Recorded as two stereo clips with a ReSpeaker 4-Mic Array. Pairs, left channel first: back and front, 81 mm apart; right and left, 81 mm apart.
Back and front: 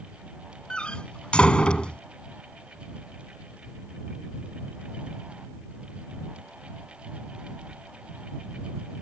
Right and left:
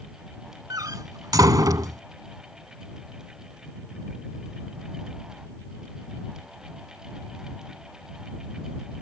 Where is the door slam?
105° left.